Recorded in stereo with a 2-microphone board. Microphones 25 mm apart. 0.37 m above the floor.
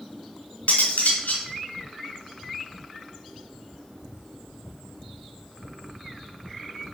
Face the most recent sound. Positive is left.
turn(degrees=80)